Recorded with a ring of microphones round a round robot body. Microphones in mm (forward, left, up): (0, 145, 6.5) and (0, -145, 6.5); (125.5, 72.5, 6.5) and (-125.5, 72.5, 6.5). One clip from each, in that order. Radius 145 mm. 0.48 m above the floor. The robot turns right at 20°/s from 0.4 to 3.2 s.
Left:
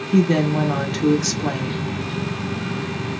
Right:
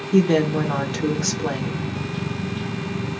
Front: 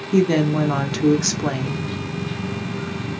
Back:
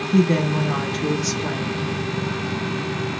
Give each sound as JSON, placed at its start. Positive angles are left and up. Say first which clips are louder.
{"t": 0.1, "sound": "a woman speaking", "louder": "right 1 dB, front 3 dB", "azimuth_deg": -15, "distance_m": 0.7}